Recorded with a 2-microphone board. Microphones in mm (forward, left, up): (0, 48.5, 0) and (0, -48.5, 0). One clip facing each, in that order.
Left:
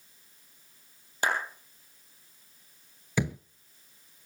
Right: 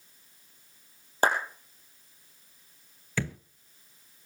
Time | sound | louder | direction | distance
1.2 | a clap | right 4 dB | 40° right (ahead or behind) | 4 m
3.2 | a thud | left 3 dB | 15° left (ahead or behind) | 0.5 m